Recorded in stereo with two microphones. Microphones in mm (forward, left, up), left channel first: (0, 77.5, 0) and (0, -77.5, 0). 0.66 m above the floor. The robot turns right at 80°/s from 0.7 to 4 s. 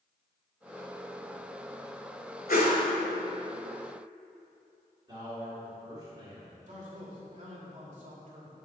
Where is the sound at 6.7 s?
50° right (ahead or behind), 2.0 m.